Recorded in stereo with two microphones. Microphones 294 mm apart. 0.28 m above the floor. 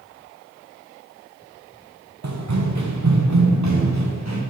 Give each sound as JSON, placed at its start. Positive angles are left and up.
{"t": 2.2, "sound": "running footsteps", "side_deg": -65, "distance_m": 1.8}